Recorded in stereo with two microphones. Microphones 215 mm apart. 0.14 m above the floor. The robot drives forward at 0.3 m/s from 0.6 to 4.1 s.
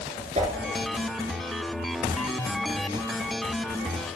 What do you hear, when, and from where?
0.3 s a whoosh: 35° right (ahead or behind), 0.7 m